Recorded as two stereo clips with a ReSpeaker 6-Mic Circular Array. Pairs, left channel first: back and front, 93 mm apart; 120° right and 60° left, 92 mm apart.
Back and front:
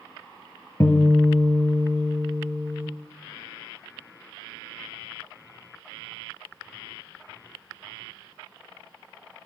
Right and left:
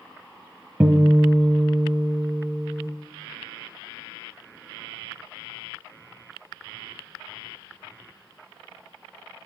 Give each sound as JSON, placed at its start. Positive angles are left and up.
{"t": 0.8, "sound": "a guitar", "azimuth_deg": 130, "distance_m": 0.7}